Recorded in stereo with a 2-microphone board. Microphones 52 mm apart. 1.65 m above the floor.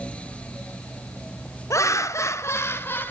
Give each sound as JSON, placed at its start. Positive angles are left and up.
{"t": 1.7, "sound": "laughter", "side_deg": 60, "distance_m": 0.9}